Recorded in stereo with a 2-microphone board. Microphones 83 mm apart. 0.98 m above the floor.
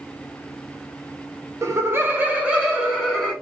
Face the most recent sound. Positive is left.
turn(degrees=-5)  # may be behind; listen again after turning